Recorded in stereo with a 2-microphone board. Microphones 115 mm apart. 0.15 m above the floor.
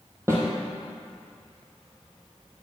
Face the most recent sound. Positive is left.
turn(degrees=-25)  # may be behind; listen again after turning